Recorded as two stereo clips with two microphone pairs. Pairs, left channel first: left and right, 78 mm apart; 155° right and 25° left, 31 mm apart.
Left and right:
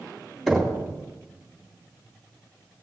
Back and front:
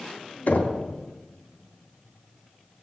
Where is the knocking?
175° left, 3 m.